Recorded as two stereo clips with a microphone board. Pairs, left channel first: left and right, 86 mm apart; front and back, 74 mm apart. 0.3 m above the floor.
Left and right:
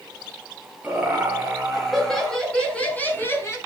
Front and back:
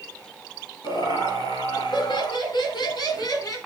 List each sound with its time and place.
0.8 s laughter: 10° right, 5.5 m; by 3.6 s 35° left, 3 m